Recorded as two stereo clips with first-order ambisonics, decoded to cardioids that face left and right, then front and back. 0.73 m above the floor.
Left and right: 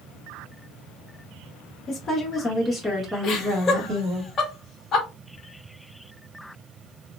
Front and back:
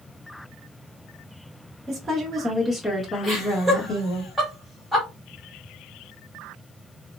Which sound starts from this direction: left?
Laughter, at 3.2 s.